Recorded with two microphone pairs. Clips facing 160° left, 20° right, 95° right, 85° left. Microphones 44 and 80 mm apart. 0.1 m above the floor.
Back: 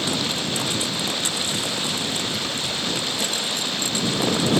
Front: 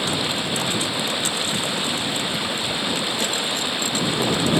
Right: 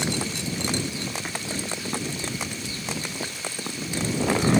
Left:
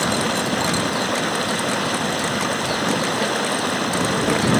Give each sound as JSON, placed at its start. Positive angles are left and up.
{"t": 0.0, "sound": "running water", "azimuth_deg": 60}